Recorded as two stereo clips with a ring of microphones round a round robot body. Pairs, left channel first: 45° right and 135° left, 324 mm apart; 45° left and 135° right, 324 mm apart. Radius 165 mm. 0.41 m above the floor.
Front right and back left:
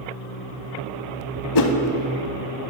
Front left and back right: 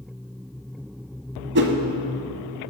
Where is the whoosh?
75° right, 0.7 m.